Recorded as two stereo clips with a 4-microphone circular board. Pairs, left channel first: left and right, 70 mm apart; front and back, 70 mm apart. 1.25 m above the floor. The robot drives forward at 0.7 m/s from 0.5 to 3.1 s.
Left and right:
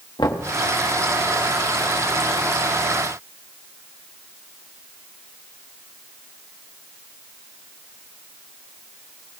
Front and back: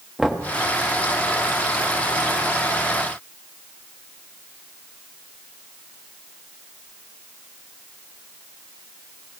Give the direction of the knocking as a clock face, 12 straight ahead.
9 o'clock.